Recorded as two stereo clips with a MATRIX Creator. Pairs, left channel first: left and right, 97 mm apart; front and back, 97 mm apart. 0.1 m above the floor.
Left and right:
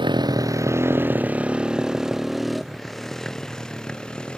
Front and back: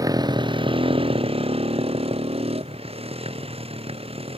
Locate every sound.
0.0 s a motorcycle: 125° right; by 4.4 s 170° left